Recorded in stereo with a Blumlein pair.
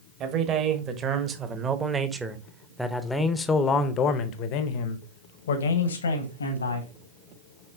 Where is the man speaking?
35° right, 2.5 m; by 6.9 s 80° left, 2 m.